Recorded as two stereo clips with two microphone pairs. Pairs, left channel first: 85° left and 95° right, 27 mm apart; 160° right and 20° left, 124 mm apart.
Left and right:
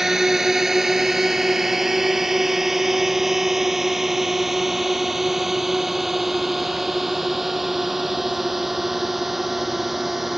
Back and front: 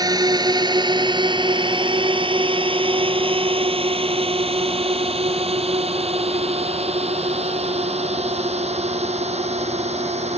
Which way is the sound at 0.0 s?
20° right.